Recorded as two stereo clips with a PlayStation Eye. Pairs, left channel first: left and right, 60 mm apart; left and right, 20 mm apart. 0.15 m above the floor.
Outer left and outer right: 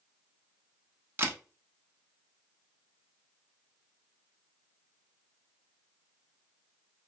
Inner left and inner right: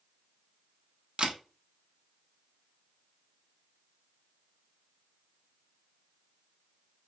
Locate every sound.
1.2 s a camera shutter: 40° right (ahead or behind), 0.6 m